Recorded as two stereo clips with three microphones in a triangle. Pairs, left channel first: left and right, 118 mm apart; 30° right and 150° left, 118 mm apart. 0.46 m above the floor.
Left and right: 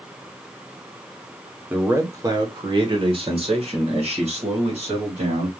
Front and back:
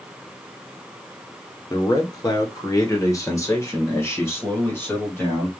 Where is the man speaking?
25° right, 1.2 m; by 5.5 s 100° right, 3 m.